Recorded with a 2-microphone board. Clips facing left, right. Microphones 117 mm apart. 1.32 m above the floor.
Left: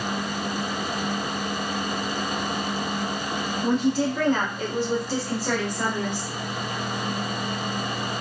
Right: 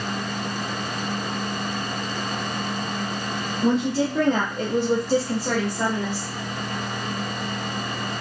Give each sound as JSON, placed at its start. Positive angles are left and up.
{"t": 3.6, "sound": "a woman speaking", "side_deg": -85, "distance_m": 0.8}